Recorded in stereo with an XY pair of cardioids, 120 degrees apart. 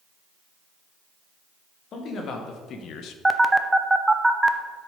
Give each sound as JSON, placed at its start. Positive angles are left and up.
{"t": 1.9, "sound": "a man speaking", "azimuth_deg": 55, "distance_m": 2.5}
{"t": 3.2, "sound": "a phone buzzing", "azimuth_deg": -10, "distance_m": 0.7}